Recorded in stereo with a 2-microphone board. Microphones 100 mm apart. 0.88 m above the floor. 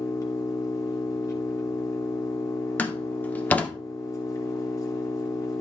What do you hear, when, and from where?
0.0 s an engine running: 30° left (ahead or behind), 3 m
2.8 s a door slam: 15° left (ahead or behind), 1.6 m